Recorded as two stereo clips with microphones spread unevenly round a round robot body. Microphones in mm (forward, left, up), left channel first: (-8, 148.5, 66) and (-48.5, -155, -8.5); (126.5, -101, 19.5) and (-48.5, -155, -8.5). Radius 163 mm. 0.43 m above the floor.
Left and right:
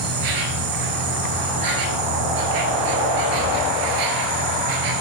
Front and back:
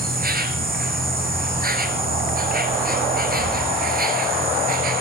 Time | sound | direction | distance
0.0 | an insect | 120° right | 1.3 m